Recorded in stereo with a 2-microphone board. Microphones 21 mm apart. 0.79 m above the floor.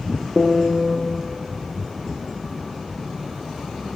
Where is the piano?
Centre (ahead or behind), 0.7 m.